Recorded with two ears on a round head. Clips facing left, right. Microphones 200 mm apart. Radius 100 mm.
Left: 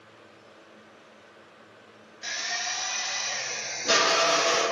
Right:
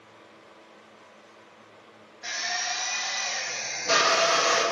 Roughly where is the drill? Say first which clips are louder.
Right 3 dB; left.